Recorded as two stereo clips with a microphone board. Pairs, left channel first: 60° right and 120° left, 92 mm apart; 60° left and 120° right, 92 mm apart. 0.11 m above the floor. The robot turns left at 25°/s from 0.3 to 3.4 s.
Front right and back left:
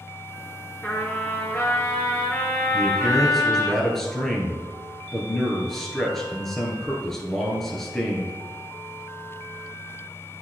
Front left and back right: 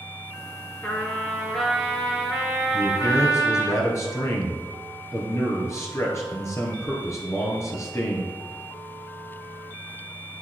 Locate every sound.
0.8 s a trumpet: straight ahead, 1.9 m; by 3.7 s 65° right, 1.9 m
2.7 s a man speaking: 40° left, 1.5 m; by 8.3 s 25° left, 1.5 m